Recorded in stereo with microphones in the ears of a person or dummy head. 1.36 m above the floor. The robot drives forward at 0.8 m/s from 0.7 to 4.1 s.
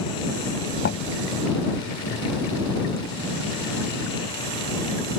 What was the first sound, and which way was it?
Knocking, 60° left (ahead or behind).